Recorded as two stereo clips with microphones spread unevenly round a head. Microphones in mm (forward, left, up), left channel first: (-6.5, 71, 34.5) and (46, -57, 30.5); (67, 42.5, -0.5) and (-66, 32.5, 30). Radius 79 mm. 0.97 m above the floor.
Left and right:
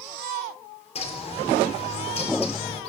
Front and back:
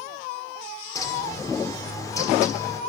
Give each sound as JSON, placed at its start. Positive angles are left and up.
{"t": 0.9, "sound": "a bird", "azimuth_deg": 70, "distance_m": 3.5}